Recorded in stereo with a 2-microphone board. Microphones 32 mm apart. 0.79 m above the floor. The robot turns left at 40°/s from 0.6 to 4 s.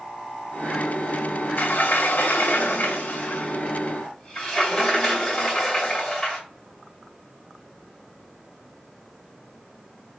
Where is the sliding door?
105° left, 1.8 m; by 6.4 s 10° left, 1.8 m.